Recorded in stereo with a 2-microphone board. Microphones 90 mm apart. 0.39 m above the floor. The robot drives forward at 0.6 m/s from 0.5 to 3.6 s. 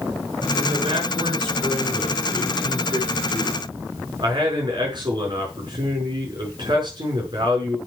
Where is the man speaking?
75° right (ahead or behind), 5 m; by 7.8 s 60° right (ahead or behind), 5.5 m.